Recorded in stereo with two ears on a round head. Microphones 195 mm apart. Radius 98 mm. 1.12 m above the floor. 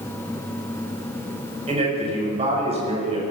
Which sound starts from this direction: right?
A man speaking, at 1.7 s.